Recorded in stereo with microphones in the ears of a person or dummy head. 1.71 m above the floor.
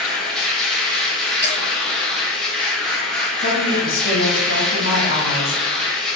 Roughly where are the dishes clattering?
Centre.